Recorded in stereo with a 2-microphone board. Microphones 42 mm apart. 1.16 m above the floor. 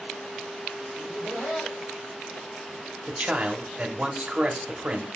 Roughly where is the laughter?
Centre.